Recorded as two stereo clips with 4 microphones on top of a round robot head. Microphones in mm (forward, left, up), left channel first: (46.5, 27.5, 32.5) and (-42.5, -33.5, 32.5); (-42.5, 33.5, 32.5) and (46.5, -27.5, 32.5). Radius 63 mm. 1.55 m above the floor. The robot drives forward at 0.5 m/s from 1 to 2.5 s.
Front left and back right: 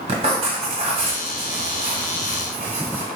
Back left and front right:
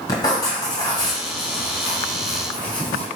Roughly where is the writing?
Behind.